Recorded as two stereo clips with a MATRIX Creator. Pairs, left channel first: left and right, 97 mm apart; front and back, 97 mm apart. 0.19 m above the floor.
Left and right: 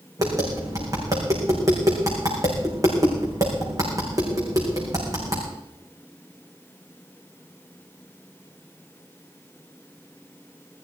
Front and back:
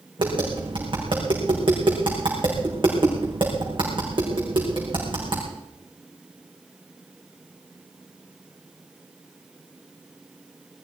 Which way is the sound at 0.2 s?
145° right.